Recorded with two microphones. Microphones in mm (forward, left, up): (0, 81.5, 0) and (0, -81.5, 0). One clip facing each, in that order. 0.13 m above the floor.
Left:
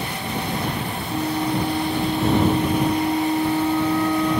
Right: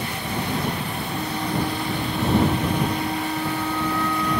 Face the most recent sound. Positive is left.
turn(degrees=25)  # may be behind; listen again after turning